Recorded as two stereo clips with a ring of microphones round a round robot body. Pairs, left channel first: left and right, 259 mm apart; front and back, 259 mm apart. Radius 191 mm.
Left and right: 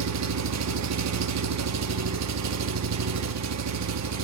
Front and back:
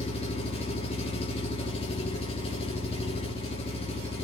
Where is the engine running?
75° right, 1.3 m.